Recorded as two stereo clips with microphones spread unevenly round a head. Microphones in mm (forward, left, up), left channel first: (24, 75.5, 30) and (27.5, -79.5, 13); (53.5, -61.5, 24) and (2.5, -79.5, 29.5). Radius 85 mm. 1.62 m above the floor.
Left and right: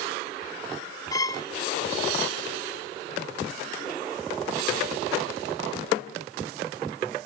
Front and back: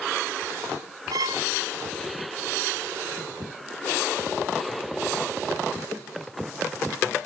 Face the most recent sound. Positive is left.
turn(degrees=160)